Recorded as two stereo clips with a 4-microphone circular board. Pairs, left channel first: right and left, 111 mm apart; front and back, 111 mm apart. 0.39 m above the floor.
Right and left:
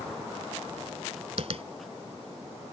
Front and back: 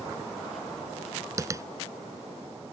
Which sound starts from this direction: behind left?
Tapping, at 1.4 s.